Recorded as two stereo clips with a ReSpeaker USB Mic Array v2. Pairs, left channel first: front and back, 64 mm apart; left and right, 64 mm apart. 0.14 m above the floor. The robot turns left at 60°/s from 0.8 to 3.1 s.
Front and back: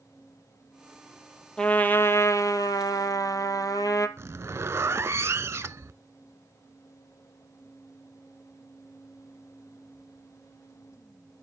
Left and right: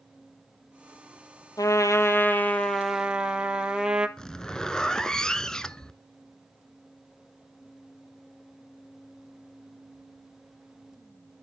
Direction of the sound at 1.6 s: 75° left.